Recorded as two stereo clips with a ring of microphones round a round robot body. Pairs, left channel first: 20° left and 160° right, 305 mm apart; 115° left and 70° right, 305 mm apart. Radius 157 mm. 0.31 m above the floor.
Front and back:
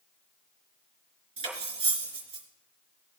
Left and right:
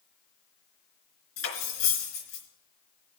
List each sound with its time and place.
1.4 s cutlery clinking: 130° left, 3.5 m